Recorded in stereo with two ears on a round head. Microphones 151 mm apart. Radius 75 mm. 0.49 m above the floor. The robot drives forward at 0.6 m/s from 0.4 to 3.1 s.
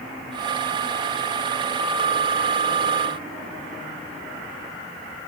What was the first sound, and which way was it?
Only background noise.